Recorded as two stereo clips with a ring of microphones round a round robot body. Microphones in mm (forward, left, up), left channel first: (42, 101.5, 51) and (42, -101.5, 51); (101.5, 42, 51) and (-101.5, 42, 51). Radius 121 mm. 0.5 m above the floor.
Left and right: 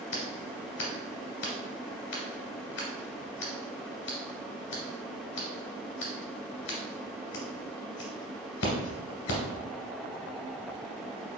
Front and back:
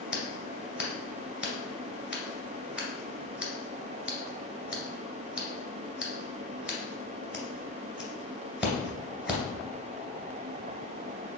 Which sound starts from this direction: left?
Scissors, at 0.1 s.